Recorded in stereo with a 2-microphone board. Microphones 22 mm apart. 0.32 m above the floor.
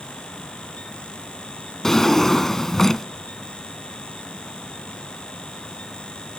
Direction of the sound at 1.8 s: 20° left (ahead or behind).